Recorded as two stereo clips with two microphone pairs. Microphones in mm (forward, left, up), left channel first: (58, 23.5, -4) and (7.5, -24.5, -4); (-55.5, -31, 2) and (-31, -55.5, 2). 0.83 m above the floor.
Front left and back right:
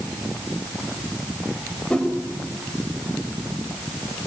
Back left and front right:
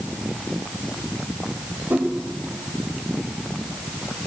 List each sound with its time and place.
1.9 s a whoosh: 35° right, 3.5 m